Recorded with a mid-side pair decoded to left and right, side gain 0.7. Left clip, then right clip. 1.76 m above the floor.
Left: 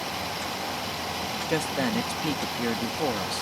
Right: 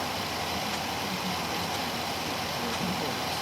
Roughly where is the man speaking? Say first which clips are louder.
Left 4 dB; ahead left.